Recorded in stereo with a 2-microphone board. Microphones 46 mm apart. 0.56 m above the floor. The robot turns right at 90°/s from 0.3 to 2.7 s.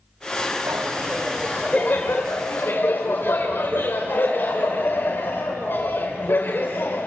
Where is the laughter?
70° right, 2.5 m; by 7.1 s 115° left, 2.5 m.